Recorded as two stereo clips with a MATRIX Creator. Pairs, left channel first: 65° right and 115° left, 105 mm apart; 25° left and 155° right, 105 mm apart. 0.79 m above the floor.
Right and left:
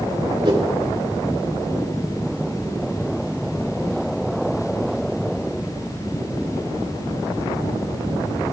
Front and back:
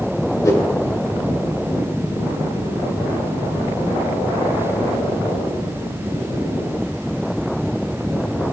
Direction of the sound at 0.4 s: 75° left.